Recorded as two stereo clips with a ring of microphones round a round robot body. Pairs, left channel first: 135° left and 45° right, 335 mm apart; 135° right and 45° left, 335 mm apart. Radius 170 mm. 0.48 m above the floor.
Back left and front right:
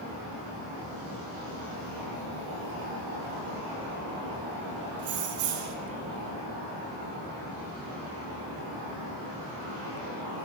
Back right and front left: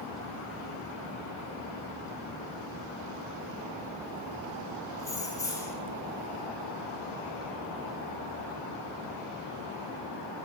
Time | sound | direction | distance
5.0 | keys jangling | 55° right | 0.6 m